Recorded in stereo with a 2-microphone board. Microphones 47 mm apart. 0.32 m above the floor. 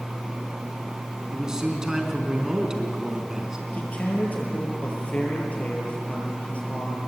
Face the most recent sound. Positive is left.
turn(degrees=30)  # may be behind; listen again after turning